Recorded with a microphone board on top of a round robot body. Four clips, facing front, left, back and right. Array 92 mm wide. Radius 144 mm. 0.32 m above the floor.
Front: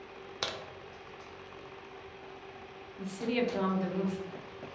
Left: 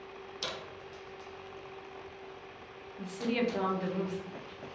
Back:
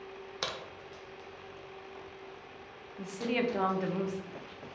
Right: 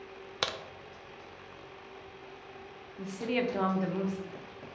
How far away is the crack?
About 0.6 m.